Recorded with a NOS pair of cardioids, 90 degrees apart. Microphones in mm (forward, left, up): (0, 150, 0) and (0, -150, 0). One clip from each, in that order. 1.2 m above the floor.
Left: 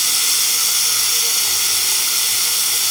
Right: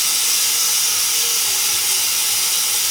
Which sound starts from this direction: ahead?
Running water, at 0.0 s.